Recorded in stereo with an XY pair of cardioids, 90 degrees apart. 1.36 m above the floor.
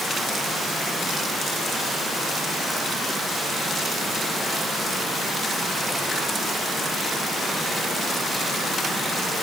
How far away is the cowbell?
I don't hear a cowbell.